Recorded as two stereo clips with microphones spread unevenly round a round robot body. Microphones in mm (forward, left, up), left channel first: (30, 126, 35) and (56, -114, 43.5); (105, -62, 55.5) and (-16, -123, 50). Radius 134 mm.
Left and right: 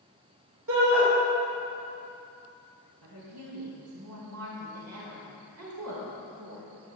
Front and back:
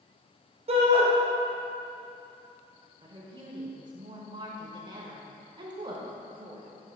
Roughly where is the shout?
Behind right.